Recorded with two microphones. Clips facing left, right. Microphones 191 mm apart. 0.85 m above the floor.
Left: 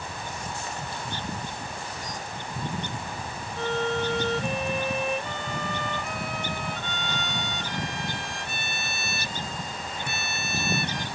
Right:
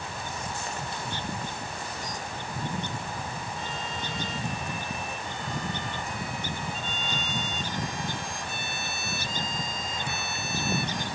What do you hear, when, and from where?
3.6 s a violin: 70° left (ahead or behind)